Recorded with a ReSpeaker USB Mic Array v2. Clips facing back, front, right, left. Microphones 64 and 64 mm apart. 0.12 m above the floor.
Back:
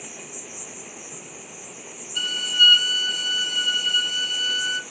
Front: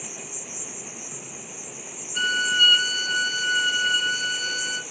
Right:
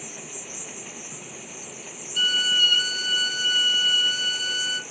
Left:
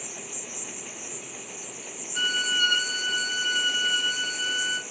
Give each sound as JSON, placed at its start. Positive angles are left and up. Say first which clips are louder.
{"t": 0.0, "sound": "an insect", "louder": "even, even", "azimuth_deg": -60, "distance_m": 1.6}
{"t": 2.1, "sound": "a violin", "louder": "front 3 dB, right 2 dB", "azimuth_deg": 45, "distance_m": 0.7}